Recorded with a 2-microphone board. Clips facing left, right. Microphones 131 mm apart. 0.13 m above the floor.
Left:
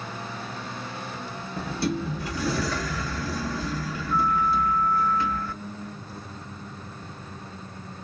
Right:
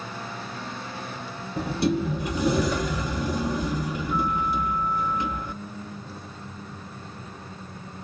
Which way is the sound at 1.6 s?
20° right (ahead or behind).